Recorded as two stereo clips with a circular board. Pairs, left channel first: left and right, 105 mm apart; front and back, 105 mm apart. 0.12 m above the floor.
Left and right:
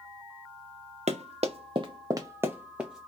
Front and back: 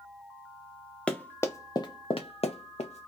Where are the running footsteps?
80° right, 0.8 m; by 3.1 s 5° right, 1.0 m.